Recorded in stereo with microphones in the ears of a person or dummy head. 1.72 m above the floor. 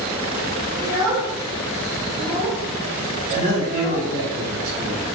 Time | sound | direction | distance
0.8 | a child speaking | 10° right (ahead or behind) | 1.1 m
3.3 | a man speaking | 70° right (ahead or behind) | 1.4 m